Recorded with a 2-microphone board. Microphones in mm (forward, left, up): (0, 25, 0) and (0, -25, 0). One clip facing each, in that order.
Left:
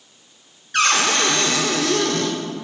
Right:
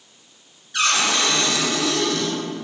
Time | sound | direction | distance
0.7 | a cupboard door | 55° left (ahead or behind) | 0.5 m